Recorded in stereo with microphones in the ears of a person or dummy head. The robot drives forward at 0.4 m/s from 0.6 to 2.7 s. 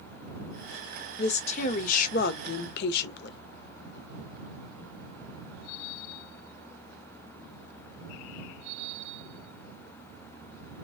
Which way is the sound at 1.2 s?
40° left (ahead or behind).